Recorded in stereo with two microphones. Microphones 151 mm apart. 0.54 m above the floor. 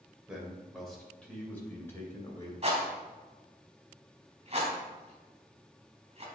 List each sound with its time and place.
0.3 s a man speaking: 5° right (ahead or behind), 2.5 m; by 2.5 s 20° left (ahead or behind), 2.5 m
2.6 s a rattle: 40° right (ahead or behind), 3 m